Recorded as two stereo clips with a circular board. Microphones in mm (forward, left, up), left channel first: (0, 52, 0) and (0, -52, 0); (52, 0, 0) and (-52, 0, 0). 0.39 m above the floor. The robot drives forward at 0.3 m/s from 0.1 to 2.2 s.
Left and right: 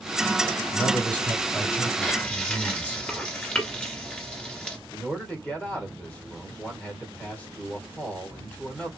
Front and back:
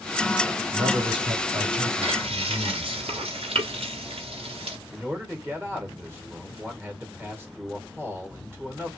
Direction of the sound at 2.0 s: 170° left.